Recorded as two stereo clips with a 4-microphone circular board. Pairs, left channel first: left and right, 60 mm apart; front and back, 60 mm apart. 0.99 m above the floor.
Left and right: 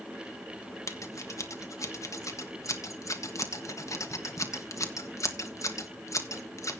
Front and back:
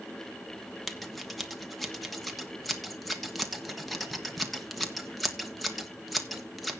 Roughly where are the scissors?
Left.